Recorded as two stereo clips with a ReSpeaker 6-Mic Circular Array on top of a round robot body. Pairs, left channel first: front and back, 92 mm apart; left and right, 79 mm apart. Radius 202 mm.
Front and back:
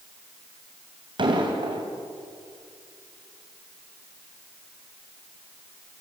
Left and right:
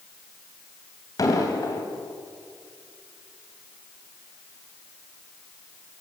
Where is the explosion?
140° left, 3 m.